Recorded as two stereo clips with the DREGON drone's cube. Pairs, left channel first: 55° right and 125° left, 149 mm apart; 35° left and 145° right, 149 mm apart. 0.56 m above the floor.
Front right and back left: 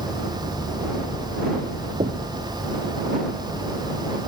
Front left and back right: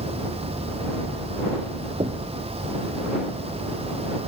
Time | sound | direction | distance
0.0 | an insect | 105° right | ?
2.0 | knocking | 165° left | ?